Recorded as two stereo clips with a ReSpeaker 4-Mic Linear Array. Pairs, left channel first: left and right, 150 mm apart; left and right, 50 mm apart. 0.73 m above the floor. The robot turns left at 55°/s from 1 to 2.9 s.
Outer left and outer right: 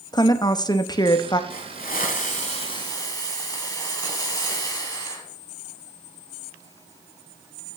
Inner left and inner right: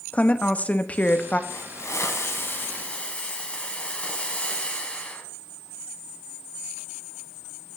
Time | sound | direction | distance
0.1 | a woman speaking | 30° left (ahead or behind) | 0.5 m
1.5 | a hiss | 105° left | 1.4 m